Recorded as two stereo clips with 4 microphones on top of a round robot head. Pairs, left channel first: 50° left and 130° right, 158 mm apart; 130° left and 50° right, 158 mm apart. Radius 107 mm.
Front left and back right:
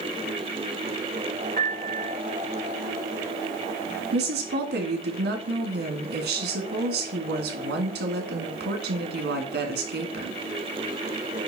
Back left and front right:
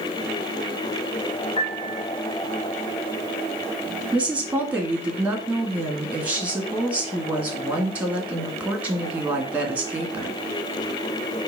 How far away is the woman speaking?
About 2.0 m.